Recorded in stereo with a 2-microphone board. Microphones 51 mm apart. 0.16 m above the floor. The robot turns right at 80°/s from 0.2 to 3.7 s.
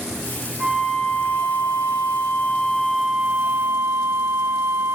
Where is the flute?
20° right, 7.5 m; by 5.0 s 130° right, 7.5 m.